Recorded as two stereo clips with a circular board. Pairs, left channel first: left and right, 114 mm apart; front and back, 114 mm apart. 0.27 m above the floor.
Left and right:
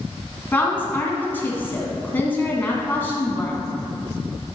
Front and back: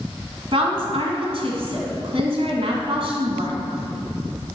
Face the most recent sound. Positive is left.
turn(degrees=160)